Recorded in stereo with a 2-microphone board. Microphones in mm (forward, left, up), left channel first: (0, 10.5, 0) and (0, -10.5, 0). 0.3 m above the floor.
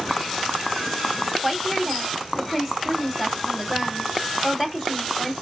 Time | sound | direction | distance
1.4 | a woman speaking | 20° right (ahead or behind) | 2 m